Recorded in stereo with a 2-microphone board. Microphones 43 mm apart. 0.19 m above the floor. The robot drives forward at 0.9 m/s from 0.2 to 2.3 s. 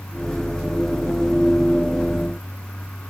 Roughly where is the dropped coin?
I don't hear a dropped coin.